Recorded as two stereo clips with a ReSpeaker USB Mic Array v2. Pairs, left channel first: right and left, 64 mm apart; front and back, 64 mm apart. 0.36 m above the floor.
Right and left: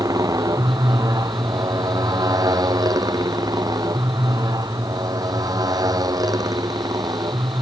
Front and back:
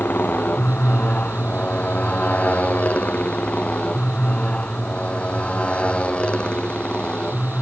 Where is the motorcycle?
65° left; by 7.6 s 75° left.